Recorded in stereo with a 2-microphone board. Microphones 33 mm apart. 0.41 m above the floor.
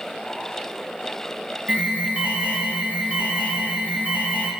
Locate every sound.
1.7 s an alarm: 50° right (ahead or behind), 2.5 m